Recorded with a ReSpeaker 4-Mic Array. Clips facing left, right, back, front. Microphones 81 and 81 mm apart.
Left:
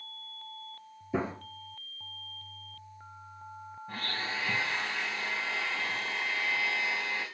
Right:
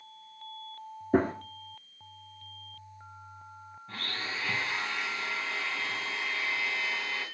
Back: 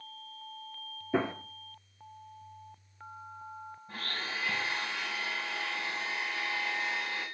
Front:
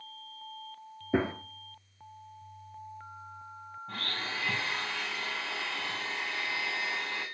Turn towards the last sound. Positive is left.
turn(degrees=15)